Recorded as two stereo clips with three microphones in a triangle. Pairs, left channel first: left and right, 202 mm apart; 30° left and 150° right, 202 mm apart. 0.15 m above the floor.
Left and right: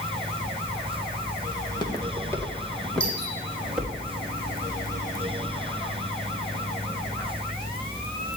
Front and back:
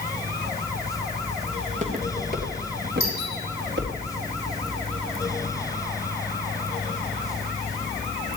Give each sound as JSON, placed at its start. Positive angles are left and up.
{"t": 1.6, "sound": "footsteps", "azimuth_deg": 155, "distance_m": 4.0}
{"t": 3.0, "sound": "a doorbell", "azimuth_deg": 65, "distance_m": 9.5}